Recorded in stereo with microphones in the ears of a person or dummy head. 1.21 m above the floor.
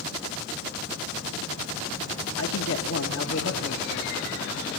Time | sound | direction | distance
2.4 | a man speaking | 75° left (ahead or behind) | 1.6 m